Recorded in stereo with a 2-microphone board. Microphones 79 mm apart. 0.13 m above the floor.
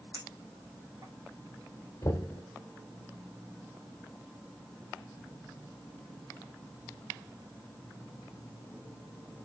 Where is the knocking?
35° left (ahead or behind), 1.3 m.